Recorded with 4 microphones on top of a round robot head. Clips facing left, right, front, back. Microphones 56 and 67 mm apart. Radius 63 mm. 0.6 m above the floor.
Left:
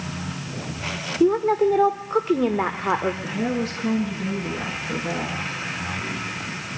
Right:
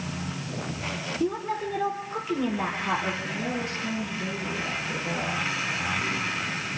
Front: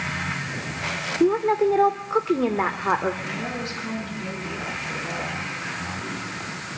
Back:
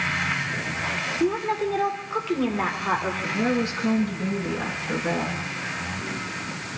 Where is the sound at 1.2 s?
60° left, 1.9 m.